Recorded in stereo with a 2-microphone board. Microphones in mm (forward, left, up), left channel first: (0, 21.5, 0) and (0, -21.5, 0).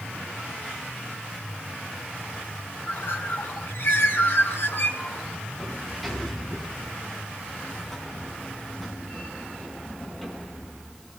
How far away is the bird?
About 4 m.